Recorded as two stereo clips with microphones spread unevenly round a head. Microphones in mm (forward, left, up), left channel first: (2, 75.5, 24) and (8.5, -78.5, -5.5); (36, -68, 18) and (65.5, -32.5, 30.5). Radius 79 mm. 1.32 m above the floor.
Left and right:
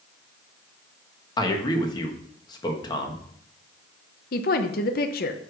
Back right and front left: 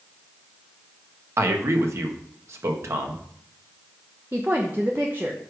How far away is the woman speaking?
About 0.8 m.